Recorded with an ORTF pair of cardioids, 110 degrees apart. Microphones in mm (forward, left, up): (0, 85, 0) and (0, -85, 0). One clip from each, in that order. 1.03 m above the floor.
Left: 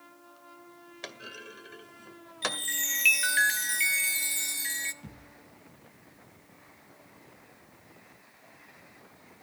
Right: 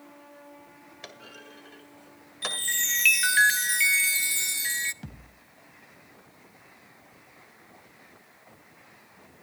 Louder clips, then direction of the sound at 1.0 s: Left 3 dB; 20° left.